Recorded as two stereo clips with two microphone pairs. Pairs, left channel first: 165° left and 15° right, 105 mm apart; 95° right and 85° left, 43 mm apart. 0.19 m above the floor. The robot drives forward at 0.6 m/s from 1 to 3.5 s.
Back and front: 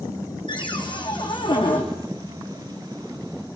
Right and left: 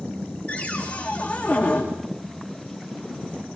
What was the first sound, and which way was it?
A cupboard door, 155° right.